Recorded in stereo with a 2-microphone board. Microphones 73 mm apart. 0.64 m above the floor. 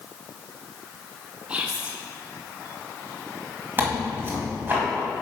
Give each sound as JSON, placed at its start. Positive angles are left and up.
{"t": 1.5, "sound": "whispering", "side_deg": -15, "distance_m": 0.7}
{"t": 3.8, "sound": "tearing paper", "side_deg": -30, "distance_m": 1.8}